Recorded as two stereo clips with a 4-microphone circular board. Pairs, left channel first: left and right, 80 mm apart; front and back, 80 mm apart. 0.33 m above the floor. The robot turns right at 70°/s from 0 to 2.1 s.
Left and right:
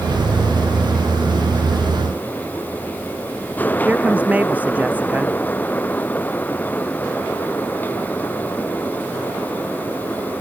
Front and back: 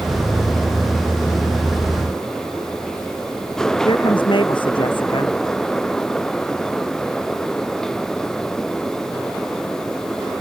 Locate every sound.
3.9 s a woman speaking: 20° right